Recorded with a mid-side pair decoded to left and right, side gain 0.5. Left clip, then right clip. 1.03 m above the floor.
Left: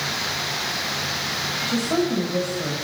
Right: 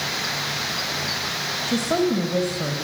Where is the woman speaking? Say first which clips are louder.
Right 3 dB; 30° right, 6 m.